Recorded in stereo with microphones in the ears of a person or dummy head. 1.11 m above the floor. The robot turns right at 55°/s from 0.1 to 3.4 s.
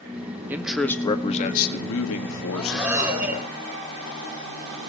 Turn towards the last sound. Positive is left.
turn(degrees=-145)